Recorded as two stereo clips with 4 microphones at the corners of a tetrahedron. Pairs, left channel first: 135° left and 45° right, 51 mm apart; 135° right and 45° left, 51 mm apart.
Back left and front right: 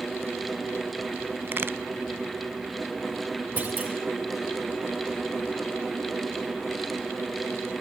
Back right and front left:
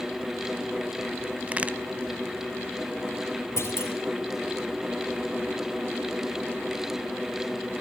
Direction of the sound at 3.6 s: 105° right.